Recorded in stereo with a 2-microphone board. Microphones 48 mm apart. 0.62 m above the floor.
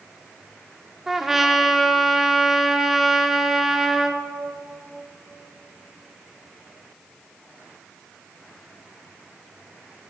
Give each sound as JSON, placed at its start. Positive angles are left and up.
{"t": 1.1, "sound": "a trumpet", "side_deg": -10, "distance_m": 0.9}